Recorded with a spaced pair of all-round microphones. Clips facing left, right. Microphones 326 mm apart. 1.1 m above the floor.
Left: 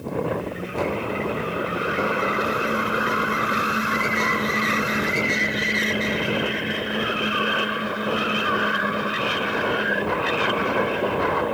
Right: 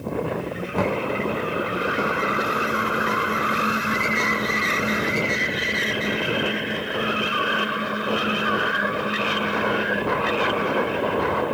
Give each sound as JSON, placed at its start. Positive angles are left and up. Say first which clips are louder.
{"t": 0.8, "sound": "knocking", "louder": "right 2 dB", "side_deg": -70, "distance_m": 1.3}